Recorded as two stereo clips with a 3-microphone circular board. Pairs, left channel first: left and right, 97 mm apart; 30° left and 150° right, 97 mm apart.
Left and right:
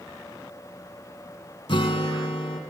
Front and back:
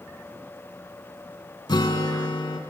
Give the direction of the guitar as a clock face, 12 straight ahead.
10 o'clock.